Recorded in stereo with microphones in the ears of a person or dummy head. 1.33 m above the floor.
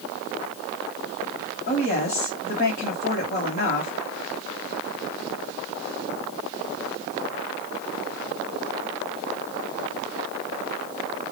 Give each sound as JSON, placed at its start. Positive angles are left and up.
{"t": 1.7, "sound": "a woman speaking", "side_deg": 55, "distance_m": 2.5}